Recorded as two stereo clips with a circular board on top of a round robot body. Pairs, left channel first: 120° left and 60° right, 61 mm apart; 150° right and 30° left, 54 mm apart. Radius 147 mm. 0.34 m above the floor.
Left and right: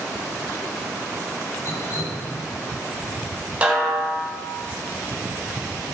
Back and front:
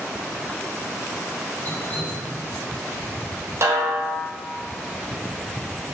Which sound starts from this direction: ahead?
A snare drum, at 3.6 s.